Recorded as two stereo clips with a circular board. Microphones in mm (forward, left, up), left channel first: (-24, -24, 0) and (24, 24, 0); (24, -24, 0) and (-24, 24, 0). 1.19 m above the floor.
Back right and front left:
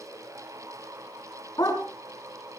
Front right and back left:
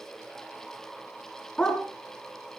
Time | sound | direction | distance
1.6 | a dog barking | 120° right | 4.5 m